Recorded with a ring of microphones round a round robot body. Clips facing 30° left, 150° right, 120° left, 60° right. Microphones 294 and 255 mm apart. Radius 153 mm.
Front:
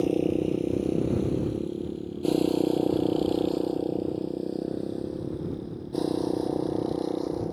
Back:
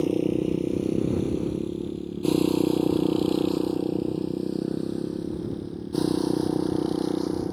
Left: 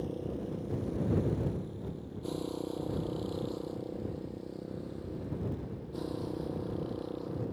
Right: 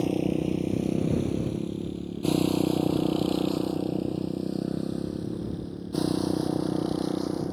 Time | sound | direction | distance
0.0 | a motorcycle | 70° right | ?